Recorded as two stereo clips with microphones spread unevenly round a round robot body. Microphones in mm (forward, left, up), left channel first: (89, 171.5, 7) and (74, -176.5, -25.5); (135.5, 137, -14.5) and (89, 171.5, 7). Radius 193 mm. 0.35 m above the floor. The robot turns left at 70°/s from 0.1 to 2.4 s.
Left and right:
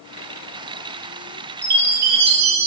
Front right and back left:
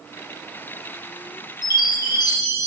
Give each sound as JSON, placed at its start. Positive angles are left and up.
{"t": 1.6, "sound": "a chime", "azimuth_deg": -20, "distance_m": 3.5}